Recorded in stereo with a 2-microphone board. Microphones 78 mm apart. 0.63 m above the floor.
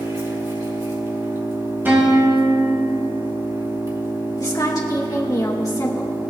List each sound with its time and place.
0.0 s an engine running: 60° right (ahead or behind), 2.5 m
1.9 s a guitar: 25° right (ahead or behind), 3 m
4.4 s a woman speaking: 50° left (ahead or behind), 1.5 m